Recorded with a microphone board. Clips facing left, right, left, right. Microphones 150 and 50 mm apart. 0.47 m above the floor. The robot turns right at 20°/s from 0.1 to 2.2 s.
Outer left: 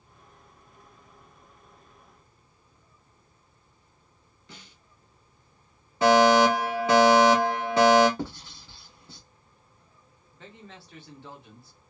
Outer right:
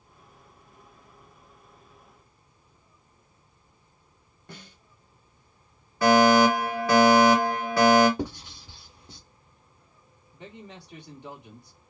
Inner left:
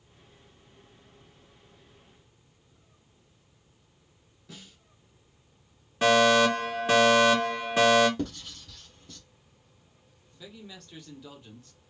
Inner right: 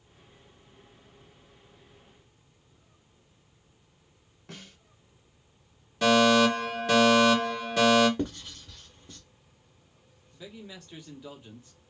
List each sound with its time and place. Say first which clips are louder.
4.5 s a snare drum: outer right 4 dB, inner right 2 dB; 55° right (ahead or behind), 0.8 m
6.0 s a fire alarm: even, even; 20° left (ahead or behind), 1.6 m
8.2 s writing: outer right 3 dB, inner right 1 dB; 15° right (ahead or behind), 1.0 m
10.3 s a man speaking: outer right 3 dB, inner right 2 dB; 15° right (ahead or behind), 0.7 m